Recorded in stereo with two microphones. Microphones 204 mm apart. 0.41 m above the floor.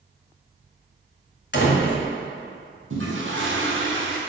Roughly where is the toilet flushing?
Right.